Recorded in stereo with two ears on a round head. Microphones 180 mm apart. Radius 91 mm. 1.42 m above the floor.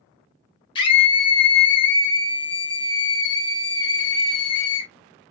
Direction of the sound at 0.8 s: 25° left (ahead or behind).